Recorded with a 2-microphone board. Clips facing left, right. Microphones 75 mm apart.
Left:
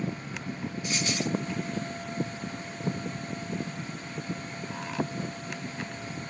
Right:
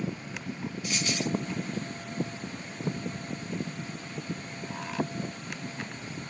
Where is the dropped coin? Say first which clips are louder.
Left 1 dB; 20° left (ahead or behind), 1.8 m.